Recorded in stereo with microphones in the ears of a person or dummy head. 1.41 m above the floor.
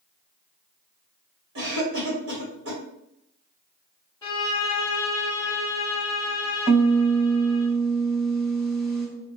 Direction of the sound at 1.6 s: 80° right.